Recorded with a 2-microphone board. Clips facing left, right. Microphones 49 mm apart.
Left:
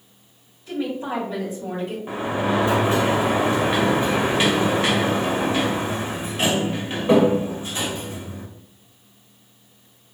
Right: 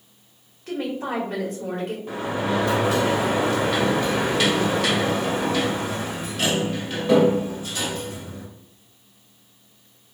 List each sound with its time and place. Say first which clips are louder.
0.7 s a woman speaking: left 1 dB; 65° right (ahead or behind), 2 m
2.1 s a sliding door: left 2 dB; 25° left (ahead or behind), 0.9 m